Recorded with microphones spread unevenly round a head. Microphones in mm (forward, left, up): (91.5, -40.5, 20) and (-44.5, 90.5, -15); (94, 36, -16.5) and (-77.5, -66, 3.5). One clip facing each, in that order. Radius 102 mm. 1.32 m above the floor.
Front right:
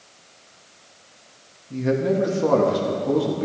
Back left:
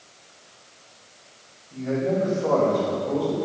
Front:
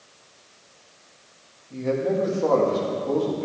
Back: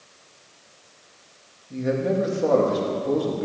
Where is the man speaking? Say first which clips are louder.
Front right 3 dB, even; 75° right, 2.5 m.